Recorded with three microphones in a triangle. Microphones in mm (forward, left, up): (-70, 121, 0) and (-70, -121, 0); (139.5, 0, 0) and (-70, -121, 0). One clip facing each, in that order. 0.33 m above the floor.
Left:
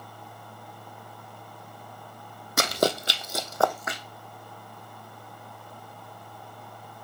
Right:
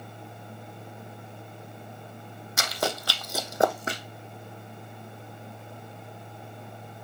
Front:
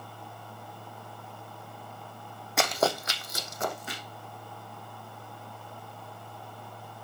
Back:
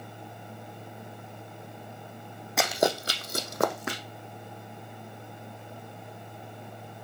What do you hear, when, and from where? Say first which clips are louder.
2.6 s running footsteps: left 6 dB, back 2 dB; 120° left, 1.1 m; by 4.0 s 145° right, 1.5 m